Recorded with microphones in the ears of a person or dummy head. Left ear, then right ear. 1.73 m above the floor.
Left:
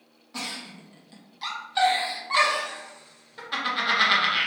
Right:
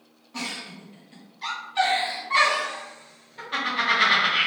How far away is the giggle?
About 0.7 m.